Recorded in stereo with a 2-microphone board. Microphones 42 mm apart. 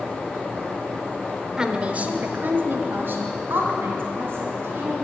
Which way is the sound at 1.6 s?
15° right (ahead or behind).